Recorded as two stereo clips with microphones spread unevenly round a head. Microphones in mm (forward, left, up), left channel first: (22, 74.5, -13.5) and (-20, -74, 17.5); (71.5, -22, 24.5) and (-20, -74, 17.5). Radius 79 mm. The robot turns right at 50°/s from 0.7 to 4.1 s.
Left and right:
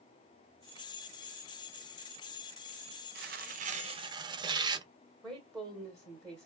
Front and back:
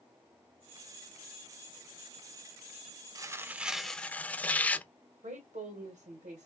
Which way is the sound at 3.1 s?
95° right.